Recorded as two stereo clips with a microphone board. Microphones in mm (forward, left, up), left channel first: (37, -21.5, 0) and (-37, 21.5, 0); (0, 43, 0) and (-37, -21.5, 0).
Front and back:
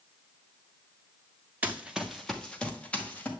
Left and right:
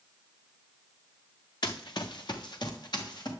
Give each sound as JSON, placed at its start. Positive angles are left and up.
{"t": 1.6, "sound": "running footsteps", "azimuth_deg": 80, "distance_m": 0.8}